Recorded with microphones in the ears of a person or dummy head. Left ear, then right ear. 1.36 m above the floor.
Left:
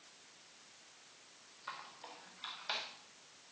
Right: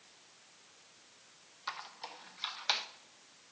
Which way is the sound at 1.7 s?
35° right (ahead or behind).